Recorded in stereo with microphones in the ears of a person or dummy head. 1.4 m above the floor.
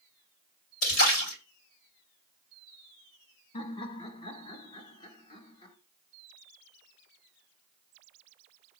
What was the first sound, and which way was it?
A splash, 70° left (ahead or behind).